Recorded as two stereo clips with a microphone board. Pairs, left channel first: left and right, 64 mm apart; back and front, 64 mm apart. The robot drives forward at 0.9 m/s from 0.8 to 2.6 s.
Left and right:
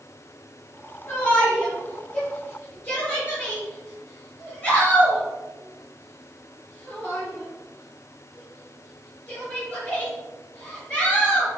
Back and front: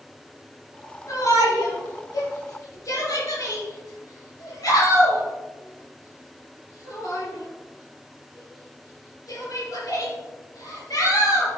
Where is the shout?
145° left, 4.5 m; by 11.5 s 155° left, 6 m.